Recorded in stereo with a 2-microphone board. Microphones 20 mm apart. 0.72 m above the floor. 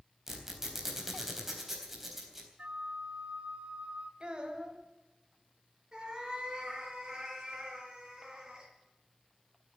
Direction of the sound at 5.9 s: 30° right (ahead or behind).